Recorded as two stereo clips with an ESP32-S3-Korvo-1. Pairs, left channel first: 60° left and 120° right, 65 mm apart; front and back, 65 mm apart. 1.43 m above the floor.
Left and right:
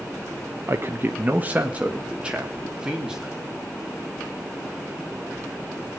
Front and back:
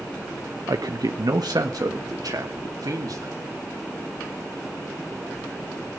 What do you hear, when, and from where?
0.7 s a man speaking: 165° right, 1.0 m; by 3.3 s 160° left, 3 m